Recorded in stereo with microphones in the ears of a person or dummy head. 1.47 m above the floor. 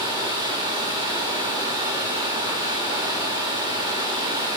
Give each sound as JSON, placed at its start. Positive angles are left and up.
{"t": 0.0, "sound": "running water", "side_deg": -20, "distance_m": 2.0}